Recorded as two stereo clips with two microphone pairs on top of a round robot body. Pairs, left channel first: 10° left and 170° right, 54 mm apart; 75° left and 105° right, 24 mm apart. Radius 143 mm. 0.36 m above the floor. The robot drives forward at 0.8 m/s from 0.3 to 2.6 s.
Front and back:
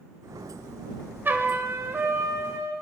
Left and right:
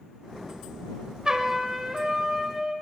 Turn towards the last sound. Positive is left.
turn(degrees=-170)